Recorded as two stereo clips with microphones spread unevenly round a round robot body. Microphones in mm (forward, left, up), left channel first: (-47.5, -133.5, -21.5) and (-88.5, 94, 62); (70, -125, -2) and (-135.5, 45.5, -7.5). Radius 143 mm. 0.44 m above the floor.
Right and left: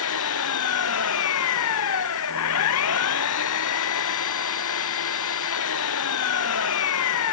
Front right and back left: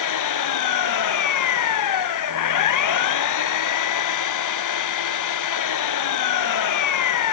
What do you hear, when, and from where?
0.0 s an engine running: 50° right